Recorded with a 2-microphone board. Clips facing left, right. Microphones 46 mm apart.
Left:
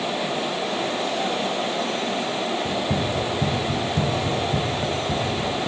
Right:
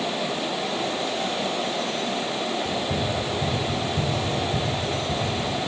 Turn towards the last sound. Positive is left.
turn(degrees=25)  # may be behind; listen again after turning